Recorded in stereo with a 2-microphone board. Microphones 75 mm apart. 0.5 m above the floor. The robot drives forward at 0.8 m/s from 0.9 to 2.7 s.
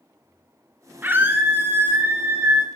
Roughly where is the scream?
Right.